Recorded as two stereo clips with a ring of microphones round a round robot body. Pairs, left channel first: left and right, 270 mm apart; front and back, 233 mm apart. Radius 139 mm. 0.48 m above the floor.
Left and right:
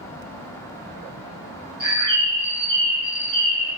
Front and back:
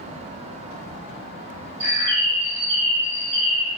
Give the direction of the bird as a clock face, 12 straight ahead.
5 o'clock.